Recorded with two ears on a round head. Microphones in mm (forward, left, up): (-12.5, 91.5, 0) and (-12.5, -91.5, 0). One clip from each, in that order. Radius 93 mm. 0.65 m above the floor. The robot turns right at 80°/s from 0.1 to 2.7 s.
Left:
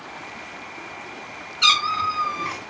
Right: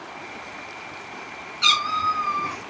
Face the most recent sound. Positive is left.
turn(degrees=115)